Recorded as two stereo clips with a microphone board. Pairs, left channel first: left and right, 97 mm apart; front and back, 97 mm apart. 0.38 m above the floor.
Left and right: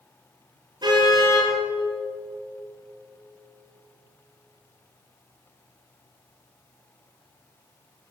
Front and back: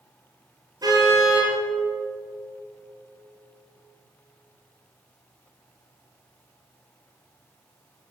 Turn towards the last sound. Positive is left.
turn(degrees=-135)